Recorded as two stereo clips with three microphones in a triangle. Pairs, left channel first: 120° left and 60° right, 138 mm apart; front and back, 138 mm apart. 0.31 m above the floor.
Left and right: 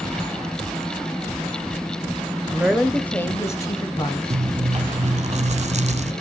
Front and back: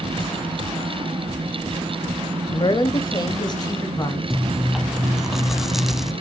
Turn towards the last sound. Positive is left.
turn(degrees=-90)